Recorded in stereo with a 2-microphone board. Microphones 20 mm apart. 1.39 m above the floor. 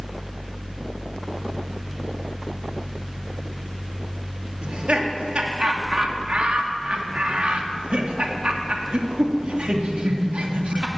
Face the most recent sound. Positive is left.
turn(degrees=-65)  # may be behind; listen again after turning